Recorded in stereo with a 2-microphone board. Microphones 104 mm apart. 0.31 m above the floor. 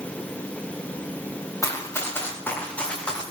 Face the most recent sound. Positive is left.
turn(degrees=10)  # may be behind; listen again after turning